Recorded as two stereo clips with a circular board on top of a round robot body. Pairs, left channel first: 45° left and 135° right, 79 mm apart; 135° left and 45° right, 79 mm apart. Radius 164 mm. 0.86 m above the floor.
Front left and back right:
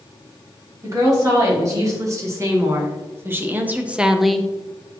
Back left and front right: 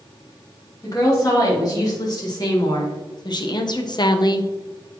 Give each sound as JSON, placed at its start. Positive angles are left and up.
{"t": 0.8, "sound": "a woman speaking", "azimuth_deg": 180, "distance_m": 3.0}